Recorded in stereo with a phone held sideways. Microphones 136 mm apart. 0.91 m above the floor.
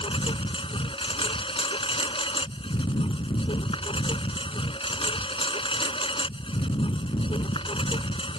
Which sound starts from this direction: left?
A lawn mower, at 0.0 s.